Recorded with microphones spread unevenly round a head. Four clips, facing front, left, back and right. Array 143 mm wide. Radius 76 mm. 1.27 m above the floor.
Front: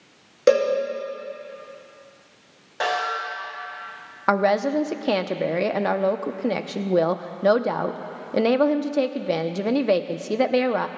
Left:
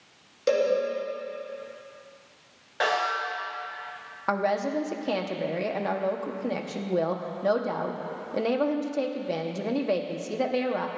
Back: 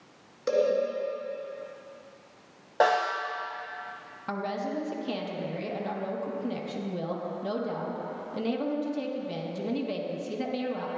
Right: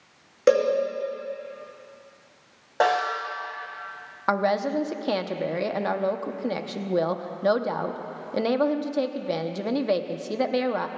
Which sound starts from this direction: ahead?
A woman speaking, at 4.3 s.